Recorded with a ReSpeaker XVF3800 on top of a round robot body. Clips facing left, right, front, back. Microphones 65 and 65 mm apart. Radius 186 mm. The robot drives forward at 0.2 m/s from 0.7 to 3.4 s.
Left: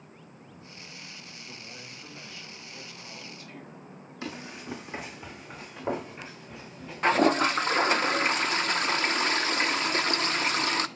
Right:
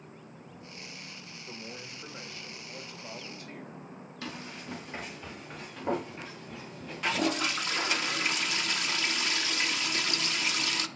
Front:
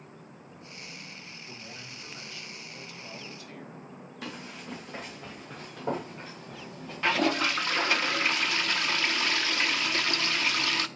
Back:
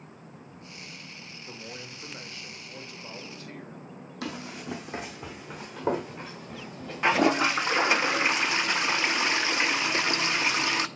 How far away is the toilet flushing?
About 0.6 m.